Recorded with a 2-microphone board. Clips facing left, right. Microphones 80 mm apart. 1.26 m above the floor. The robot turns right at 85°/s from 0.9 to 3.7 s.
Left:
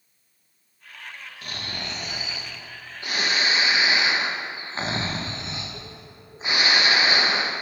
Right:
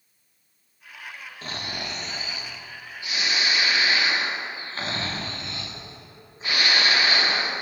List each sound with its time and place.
1.4 s snoring: 45° right, 0.5 m; by 7.5 s 150° left, 0.5 m